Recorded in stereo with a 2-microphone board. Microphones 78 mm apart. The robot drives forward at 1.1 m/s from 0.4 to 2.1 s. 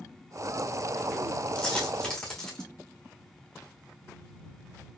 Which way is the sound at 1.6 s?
10° left (ahead or behind).